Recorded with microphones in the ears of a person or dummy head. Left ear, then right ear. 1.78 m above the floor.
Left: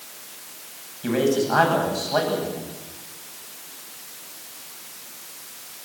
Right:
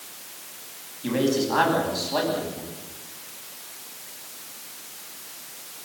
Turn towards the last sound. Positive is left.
turn(degrees=55)  # may be behind; listen again after turning